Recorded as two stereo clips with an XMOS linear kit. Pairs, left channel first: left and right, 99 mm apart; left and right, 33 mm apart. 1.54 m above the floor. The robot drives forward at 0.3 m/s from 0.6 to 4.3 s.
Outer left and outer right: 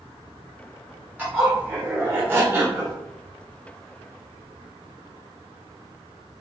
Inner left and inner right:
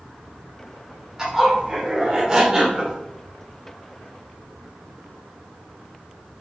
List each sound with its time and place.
1.2 s a zipper: 20° right (ahead or behind), 1.3 m; by 3.0 s 25° right (ahead or behind), 0.9 m